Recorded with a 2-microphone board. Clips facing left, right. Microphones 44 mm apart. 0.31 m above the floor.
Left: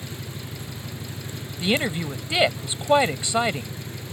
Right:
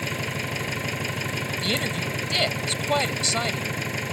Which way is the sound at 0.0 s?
60° right (ahead or behind).